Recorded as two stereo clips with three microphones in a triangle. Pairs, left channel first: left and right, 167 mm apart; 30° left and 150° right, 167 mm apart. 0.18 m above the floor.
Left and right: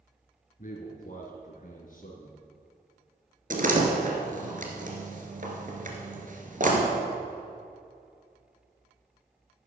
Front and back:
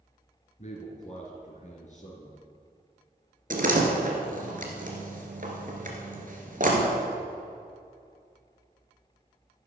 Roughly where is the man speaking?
Ahead left.